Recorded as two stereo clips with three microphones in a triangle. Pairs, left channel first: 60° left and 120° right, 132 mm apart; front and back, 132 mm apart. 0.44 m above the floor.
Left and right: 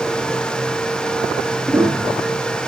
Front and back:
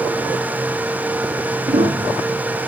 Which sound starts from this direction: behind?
A piano, at 1.7 s.